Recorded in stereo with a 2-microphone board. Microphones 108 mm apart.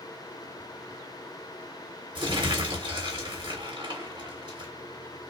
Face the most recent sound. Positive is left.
turn(degrees=-45)  # may be behind; listen again after turning